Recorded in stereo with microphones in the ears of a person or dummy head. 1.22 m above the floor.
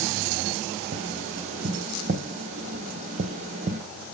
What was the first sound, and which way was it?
Tapping, 40° right (ahead or behind).